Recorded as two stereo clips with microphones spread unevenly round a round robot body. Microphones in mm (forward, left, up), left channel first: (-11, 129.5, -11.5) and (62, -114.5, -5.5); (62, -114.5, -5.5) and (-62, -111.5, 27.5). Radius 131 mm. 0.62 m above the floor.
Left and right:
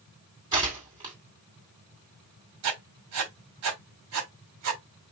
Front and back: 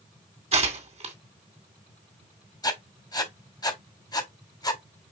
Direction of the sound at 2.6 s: 50° right.